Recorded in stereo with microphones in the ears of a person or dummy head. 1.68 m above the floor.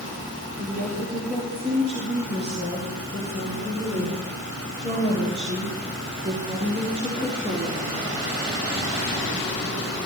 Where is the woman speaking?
40° right (ahead or behind), 7 m; by 8.1 s 65° right (ahead or behind), 11 m.